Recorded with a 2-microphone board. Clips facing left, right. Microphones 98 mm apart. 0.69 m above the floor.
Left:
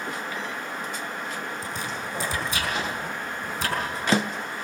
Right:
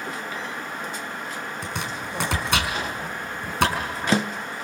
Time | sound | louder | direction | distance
1.6 | chopping | right 1 dB | 70° right (ahead or behind) | 5.5 m